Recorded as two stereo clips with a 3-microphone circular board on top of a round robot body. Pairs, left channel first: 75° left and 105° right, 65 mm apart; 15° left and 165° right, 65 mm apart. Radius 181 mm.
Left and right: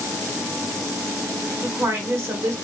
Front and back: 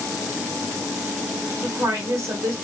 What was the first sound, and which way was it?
A woman speaking, 135° right.